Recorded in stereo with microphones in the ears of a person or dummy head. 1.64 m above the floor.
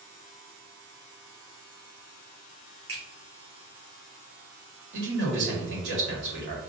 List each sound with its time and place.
2.9 s a finger snap: 30° right (ahead or behind), 1.5 m
4.9 s a man speaking: 75° right (ahead or behind), 1.6 m